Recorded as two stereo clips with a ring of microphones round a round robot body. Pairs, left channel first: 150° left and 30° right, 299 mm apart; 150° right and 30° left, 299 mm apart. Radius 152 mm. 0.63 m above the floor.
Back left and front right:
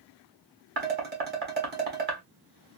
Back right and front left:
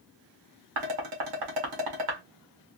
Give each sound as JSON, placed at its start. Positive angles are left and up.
{"t": 0.8, "sound": "dishes clattering", "azimuth_deg": 30, "distance_m": 1.4}